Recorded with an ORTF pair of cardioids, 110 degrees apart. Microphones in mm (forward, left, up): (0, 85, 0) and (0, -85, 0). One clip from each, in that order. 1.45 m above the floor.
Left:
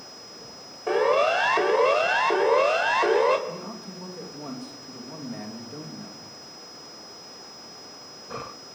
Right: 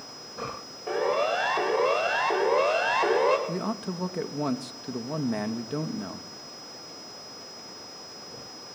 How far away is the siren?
About 5 m.